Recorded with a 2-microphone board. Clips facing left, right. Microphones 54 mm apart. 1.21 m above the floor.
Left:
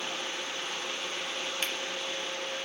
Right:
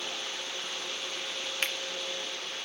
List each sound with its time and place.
1.6 s a finger snap: 45° right (ahead or behind), 1.1 m